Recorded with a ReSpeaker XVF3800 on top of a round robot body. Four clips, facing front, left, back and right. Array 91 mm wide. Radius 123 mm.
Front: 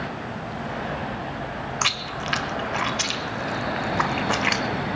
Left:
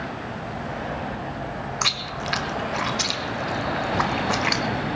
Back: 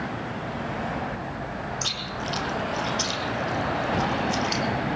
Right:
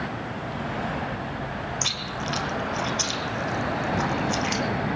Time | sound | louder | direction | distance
1.8 | chewing | left 3 dB, front 4 dB | 40° left | 0.8 m